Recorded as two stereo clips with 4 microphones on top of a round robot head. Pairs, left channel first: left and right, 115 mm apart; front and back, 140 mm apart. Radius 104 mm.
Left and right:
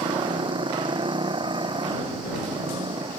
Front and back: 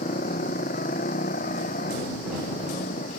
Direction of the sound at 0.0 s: 45° right.